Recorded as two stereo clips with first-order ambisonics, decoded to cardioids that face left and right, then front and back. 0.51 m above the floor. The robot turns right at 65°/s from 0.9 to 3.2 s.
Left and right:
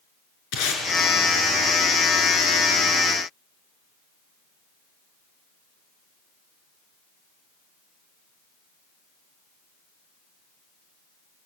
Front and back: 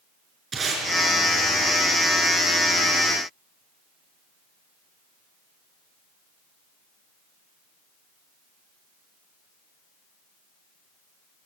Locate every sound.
0.5 s tape being pulled: 105° left, 6.5 m